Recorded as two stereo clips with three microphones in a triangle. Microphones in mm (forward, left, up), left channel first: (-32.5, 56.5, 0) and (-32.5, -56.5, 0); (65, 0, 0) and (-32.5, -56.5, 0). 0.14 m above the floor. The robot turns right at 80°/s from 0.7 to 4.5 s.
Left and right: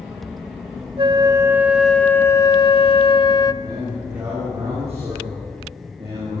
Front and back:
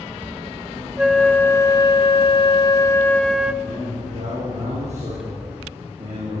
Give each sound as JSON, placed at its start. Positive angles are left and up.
{"t": 1.0, "sound": "a flute", "azimuth_deg": -70, "distance_m": 0.7}
{"t": 3.6, "sound": "a man speaking", "azimuth_deg": 165, "distance_m": 8.5}